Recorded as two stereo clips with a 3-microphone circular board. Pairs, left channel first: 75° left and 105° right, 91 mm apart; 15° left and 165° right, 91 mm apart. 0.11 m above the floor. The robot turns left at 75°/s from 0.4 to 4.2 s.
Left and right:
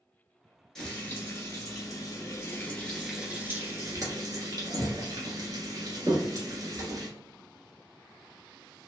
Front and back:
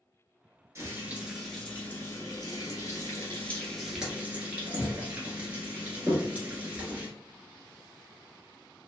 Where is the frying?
155° left, 1.2 m; by 7.1 s 100° right, 1.2 m.